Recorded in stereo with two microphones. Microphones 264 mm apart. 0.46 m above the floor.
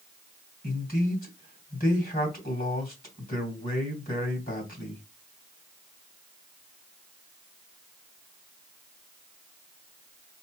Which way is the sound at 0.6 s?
35° left (ahead or behind).